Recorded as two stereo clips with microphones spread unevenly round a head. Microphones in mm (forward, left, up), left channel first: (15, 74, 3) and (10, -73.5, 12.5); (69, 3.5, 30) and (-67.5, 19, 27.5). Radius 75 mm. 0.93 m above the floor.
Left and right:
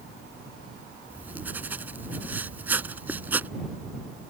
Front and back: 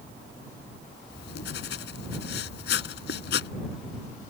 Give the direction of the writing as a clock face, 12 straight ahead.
12 o'clock.